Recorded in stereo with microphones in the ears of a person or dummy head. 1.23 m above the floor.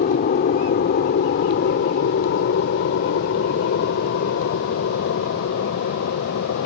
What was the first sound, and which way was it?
An aircraft, 45° left (ahead or behind).